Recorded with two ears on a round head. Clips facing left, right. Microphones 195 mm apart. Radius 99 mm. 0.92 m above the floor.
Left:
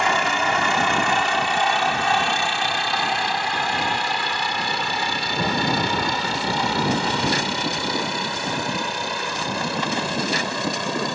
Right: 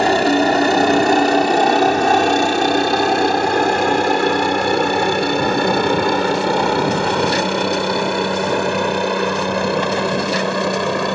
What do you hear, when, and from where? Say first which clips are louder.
0.0 s a helicopter: right 10 dB; 35° right (ahead or behind); by 11.2 s 55° right (ahead or behind)